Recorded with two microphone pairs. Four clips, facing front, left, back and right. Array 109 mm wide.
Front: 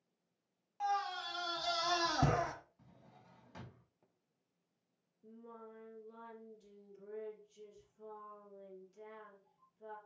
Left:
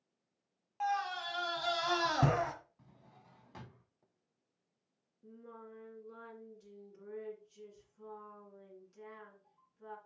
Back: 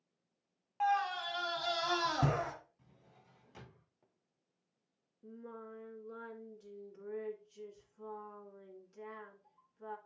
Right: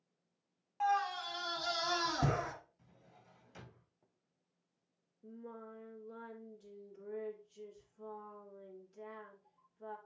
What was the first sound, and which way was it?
A scream, 175° left.